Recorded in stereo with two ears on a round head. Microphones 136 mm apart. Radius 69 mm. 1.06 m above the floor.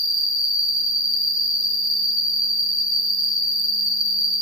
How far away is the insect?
About 0.9 m.